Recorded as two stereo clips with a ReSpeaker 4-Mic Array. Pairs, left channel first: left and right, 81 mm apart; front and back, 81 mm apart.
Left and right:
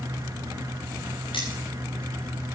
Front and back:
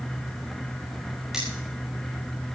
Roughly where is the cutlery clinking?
Left.